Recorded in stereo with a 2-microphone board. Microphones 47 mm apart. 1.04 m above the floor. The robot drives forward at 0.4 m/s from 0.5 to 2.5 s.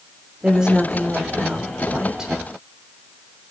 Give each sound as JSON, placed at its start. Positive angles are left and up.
{"t": 0.4, "sound": "a woman speaking", "side_deg": -15, "distance_m": 4.0}